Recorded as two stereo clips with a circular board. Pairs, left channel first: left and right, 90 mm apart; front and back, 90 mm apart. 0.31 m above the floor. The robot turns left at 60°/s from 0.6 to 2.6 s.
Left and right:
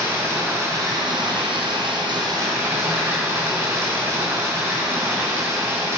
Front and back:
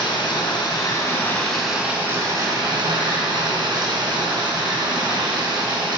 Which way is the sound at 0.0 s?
30° right.